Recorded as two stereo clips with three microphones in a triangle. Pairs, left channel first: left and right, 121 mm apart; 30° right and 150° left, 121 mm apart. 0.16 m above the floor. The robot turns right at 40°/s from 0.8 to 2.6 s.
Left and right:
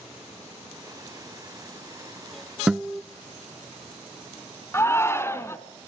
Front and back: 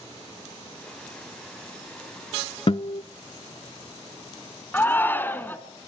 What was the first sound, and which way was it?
A guitar, 10° right.